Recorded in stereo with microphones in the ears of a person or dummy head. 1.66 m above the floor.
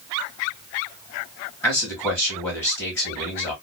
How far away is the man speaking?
About 1.8 m.